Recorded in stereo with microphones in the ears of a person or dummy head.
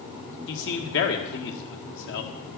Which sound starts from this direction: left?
A man speaking, at 0.5 s.